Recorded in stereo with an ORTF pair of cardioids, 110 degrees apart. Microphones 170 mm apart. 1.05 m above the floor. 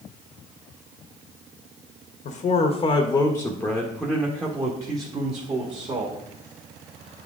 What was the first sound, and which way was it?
A man speaking, 50° left.